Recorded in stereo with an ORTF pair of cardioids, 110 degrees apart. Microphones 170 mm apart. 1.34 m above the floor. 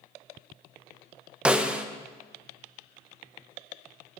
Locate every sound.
1.4 s a snare drum: 5° right, 0.8 m